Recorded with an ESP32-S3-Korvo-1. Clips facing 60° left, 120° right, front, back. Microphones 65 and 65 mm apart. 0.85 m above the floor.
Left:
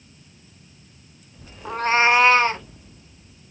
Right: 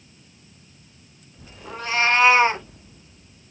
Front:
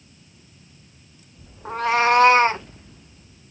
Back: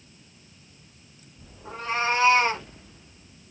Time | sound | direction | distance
1.6 | a cat meowing | 35° left | 0.6 m